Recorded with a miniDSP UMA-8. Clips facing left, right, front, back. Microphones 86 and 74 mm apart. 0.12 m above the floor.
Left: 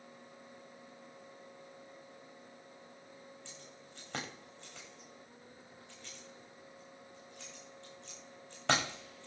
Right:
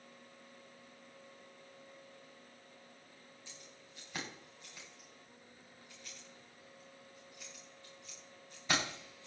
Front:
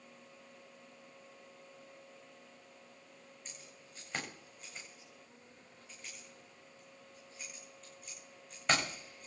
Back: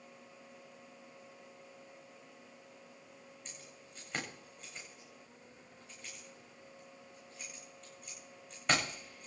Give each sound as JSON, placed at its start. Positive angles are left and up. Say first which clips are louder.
{"t": 3.5, "sound": "keys jangling", "louder": "left 4 dB, back 1 dB", "azimuth_deg": 90, "distance_m": 8.5}